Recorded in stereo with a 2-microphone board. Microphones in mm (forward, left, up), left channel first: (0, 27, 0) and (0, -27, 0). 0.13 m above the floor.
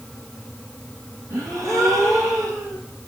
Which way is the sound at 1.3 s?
65° right (ahead or behind).